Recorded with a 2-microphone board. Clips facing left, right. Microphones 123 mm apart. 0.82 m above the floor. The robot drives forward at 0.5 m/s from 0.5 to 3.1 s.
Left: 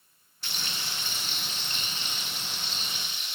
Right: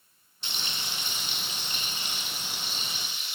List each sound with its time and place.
0.4 s frying: 25° right (ahead or behind), 1.0 m; by 3.4 s 10° right (ahead or behind), 2.5 m